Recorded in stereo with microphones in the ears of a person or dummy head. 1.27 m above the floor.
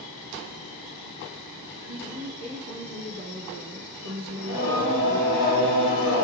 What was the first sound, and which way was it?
A woman speaking, 70° right (ahead or behind).